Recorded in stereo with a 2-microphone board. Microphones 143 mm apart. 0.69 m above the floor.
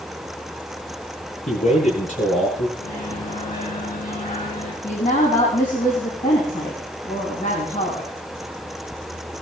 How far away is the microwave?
About 6 m.